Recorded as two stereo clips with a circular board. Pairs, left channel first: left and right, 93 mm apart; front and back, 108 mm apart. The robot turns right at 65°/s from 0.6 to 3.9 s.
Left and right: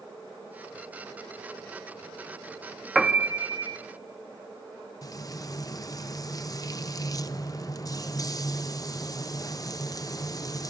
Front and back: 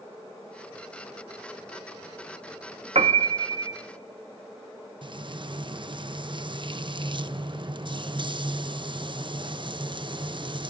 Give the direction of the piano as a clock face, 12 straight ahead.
6 o'clock.